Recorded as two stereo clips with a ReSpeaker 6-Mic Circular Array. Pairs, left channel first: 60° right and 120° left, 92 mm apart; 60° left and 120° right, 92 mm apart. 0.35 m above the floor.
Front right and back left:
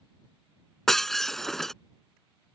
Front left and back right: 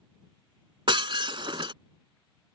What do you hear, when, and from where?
0.9 s breaking glass: 145° right